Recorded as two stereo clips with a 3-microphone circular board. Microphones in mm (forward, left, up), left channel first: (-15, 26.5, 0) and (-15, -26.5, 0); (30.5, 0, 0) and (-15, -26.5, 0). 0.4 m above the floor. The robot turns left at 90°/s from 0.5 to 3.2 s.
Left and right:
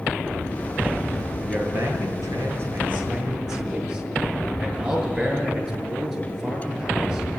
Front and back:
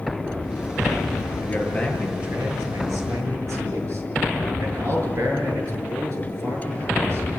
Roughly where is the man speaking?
Ahead.